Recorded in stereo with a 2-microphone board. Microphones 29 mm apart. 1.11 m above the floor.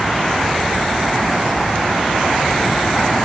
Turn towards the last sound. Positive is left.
No sound to turn to.